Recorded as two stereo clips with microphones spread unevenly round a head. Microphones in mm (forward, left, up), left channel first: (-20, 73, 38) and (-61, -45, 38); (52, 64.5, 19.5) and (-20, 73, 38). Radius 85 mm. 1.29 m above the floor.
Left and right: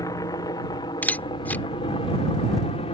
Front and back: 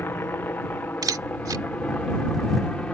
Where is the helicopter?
20° left; by 3.0 s 60° left.